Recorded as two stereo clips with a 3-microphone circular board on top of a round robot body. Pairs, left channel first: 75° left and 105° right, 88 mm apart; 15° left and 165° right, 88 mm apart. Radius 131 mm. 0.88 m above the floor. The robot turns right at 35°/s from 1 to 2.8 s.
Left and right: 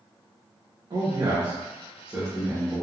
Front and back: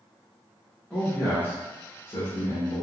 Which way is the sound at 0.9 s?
65° right.